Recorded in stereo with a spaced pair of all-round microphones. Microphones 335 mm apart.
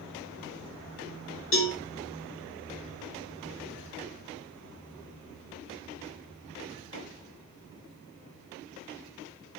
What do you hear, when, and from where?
1.5 s a cowbell: 40° left (ahead or behind), 0.7 m